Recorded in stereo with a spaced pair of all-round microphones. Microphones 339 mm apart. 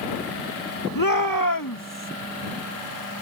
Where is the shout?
75° left (ahead or behind); by 2.1 s 65° left (ahead or behind).